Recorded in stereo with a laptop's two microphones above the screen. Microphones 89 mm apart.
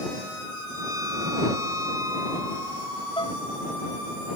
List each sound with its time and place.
0.7 s a violin: 40° right (ahead or behind)
3.2 s dishes clattering: 65° left (ahead or behind)